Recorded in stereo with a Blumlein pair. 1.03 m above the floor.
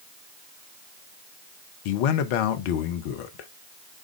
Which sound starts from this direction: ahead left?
A man speaking, at 1.9 s.